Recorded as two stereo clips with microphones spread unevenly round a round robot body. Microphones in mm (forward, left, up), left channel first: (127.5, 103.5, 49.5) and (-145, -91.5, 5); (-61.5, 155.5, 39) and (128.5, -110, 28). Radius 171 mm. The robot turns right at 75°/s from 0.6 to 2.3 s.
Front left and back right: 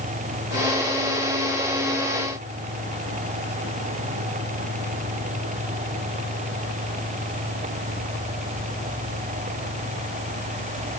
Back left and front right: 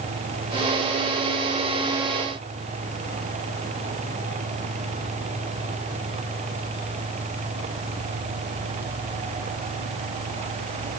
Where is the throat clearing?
I don't hear throat clearing.